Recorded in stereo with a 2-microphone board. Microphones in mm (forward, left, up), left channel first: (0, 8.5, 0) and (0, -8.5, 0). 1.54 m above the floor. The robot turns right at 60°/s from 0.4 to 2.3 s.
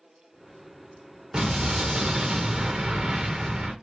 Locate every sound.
1.3 s an explosion: 125° right, 1.0 m; by 3.7 s 70° right, 1.0 m